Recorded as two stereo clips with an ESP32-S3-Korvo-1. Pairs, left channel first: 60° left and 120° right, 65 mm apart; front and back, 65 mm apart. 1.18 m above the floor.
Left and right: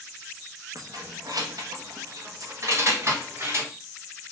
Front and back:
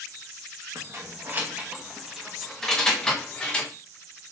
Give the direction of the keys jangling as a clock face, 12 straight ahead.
5 o'clock.